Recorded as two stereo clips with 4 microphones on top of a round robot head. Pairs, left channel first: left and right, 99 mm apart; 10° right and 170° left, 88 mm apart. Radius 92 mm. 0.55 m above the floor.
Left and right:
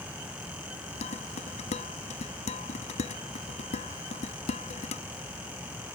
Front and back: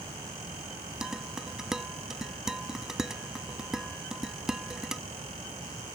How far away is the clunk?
No clunk in this recording.